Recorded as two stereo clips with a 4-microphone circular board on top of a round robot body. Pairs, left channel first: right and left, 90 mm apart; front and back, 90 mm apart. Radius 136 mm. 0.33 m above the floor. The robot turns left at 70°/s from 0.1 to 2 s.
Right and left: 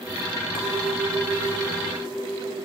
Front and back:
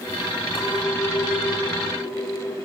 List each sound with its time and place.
0.6 s a clink: 60° left, 4.5 m; by 2.5 s 45° right, 4.5 m